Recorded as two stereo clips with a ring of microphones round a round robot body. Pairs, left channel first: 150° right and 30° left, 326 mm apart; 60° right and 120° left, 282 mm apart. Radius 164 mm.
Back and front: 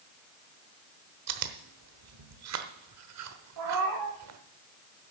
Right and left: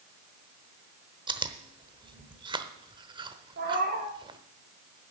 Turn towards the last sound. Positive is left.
turn(degrees=65)